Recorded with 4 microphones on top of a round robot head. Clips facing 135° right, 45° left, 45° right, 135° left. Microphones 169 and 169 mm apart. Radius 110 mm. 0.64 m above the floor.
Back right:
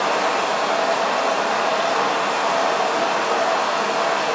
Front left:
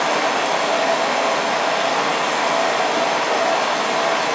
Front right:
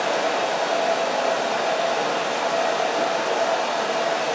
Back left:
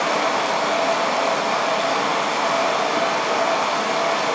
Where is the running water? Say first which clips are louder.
Front left 1 dB, back left 1 dB; 110° left, 1.9 m.